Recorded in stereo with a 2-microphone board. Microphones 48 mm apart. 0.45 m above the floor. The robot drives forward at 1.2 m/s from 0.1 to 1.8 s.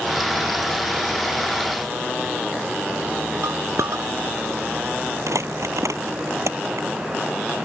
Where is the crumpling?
85° right.